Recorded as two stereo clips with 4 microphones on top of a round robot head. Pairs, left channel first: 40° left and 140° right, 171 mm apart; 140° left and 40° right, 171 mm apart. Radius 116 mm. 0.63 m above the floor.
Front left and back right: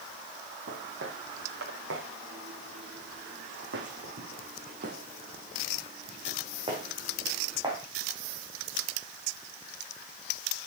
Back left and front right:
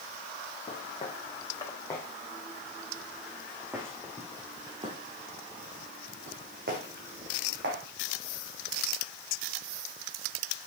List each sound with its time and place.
0.7 s footsteps: 160° right, 3 m; by 7.8 s 70° right, 3.5 m